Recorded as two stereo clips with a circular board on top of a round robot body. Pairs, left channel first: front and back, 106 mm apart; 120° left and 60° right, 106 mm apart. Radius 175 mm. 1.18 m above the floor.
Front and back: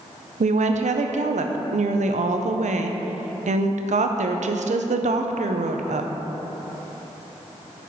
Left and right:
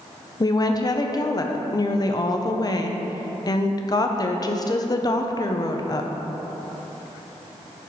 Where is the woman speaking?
175° left, 0.5 m.